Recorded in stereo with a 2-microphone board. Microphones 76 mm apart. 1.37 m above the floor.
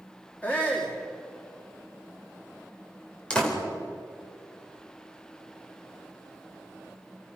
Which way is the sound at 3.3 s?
15° left (ahead or behind).